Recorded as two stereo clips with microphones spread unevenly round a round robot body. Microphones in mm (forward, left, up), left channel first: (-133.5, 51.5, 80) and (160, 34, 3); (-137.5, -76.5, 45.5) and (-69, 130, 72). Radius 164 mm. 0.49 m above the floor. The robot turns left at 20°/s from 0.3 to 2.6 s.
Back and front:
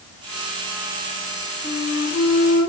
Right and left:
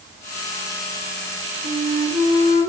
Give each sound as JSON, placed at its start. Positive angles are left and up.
{"t": 1.6, "sound": "a flute", "azimuth_deg": 135, "distance_m": 1.4}